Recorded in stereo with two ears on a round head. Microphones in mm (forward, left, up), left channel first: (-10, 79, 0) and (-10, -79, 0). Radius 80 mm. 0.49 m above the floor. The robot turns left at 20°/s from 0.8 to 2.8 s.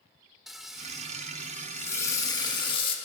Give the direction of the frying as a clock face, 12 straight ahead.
6 o'clock.